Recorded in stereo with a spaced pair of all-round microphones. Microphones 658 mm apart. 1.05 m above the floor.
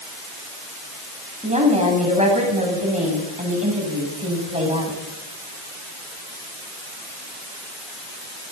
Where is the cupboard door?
I don't hear a cupboard door.